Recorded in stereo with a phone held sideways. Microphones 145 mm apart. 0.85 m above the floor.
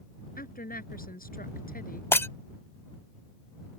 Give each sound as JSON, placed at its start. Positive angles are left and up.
{"t": 0.4, "sound": "a woman speaking", "side_deg": 85}
{"t": 2.1, "sound": "breaking glass", "side_deg": 15}